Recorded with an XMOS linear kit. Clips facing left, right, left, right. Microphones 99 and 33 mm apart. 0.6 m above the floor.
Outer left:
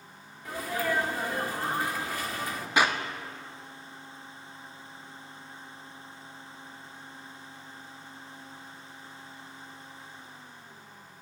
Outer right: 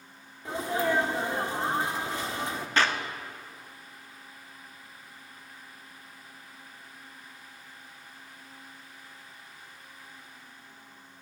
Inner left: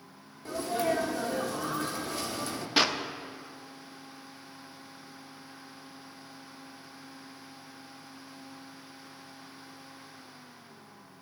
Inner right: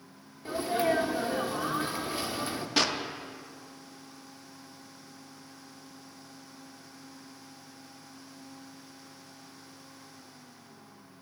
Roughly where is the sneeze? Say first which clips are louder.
Outer right 3 dB, inner right 2 dB; right.